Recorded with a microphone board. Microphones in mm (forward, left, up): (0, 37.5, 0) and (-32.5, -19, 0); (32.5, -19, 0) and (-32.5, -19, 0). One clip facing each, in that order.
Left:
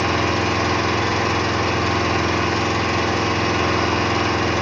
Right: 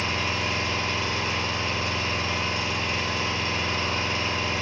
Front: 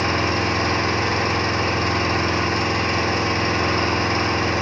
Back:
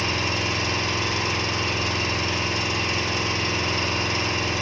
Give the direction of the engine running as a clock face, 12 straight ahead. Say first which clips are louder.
Left 8 dB, front 5 dB; 10 o'clock.